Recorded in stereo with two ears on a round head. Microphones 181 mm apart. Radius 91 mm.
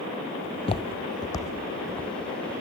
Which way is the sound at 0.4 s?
20° left (ahead or behind).